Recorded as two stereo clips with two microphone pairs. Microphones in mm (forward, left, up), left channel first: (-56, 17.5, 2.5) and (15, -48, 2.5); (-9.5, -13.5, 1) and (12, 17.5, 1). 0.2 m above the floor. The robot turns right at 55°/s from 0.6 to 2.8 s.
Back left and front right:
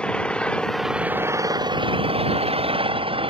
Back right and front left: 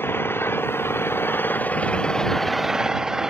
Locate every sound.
0.0 s an engine running: 140° right; by 3.3 s 20° right